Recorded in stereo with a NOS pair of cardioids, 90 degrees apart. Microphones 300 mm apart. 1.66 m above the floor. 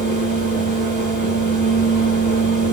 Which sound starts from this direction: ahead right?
A fan, at 0.0 s.